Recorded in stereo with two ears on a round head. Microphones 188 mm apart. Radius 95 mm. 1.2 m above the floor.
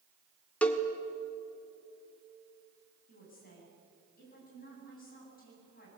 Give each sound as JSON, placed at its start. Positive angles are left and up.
{"t": 0.6, "sound": "a cowbell", "side_deg": 5, "distance_m": 1.6}
{"t": 3.1, "sound": "a woman speaking", "side_deg": 45, "distance_m": 9.0}